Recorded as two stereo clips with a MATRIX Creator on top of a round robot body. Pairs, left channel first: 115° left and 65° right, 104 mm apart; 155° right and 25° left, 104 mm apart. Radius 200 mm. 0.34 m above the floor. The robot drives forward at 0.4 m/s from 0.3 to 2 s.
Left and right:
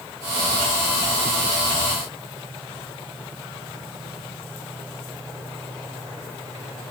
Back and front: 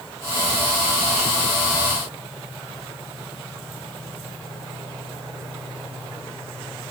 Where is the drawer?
I don't hear a drawer.